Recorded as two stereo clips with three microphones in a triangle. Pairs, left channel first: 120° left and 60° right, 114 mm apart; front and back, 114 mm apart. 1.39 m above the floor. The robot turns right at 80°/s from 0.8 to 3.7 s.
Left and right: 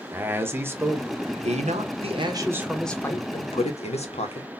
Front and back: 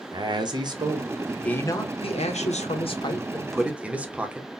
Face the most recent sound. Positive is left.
turn(degrees=100)